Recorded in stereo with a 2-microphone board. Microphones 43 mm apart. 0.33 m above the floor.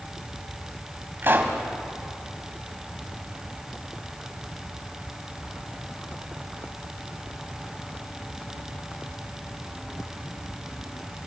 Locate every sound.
1.2 s a pop: 50° right (ahead or behind), 2.5 m